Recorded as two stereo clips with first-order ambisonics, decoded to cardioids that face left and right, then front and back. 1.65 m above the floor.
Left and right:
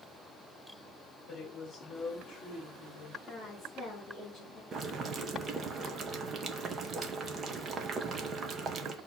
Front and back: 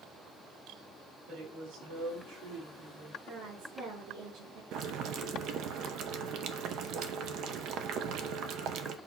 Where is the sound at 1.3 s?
170° left, 5 m; by 3.2 s 155° left, 5 m.